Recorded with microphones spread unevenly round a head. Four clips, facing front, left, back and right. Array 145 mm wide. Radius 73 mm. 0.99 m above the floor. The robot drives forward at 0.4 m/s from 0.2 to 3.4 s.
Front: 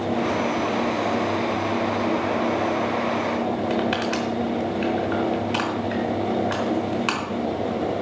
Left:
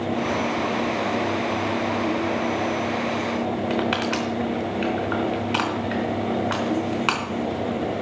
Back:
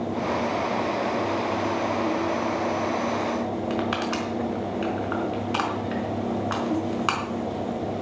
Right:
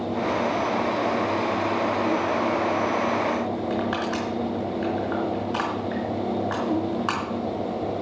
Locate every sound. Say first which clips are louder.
3.7 s crushing: left 2 dB, front 3 dB; 85° left, 4 m